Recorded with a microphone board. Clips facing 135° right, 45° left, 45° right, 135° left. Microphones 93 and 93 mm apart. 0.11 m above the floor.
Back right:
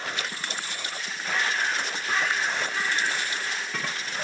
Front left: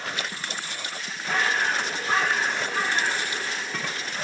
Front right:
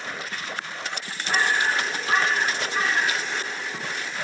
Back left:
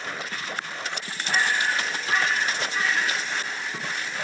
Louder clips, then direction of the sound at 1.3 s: Front left 3 dB, front right 2 dB; 5° left.